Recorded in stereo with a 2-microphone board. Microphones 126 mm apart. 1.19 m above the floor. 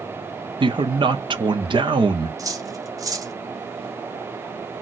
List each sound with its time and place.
0.6 s a man speaking: 40° right (ahead or behind), 0.6 m
2.4 s cutlery clinking: 30° right (ahead or behind), 0.6 m